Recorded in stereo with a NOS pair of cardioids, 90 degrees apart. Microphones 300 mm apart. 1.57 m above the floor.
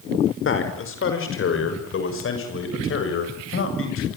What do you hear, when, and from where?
0.5 s a man speaking: 45° left, 6 m